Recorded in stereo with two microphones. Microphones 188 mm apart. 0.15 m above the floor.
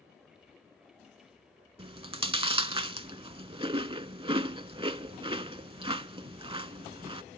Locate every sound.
1.8 s chewing: 30° right (ahead or behind), 0.5 m